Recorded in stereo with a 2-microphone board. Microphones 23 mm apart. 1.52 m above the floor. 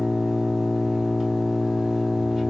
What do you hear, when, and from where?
0.0 s an engine running: 15° right (ahead or behind), 2.0 m